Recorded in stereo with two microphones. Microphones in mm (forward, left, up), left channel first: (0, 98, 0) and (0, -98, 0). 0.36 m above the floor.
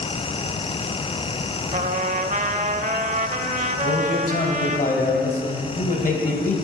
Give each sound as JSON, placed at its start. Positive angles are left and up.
{"t": 1.7, "sound": "a trumpet", "side_deg": -40, "distance_m": 0.6}
{"t": 3.8, "sound": "a man speaking", "side_deg": 45, "distance_m": 2.0}